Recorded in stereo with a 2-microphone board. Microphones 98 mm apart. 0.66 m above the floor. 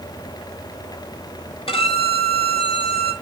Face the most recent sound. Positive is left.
turn(degrees=70)  # may be behind; listen again after turning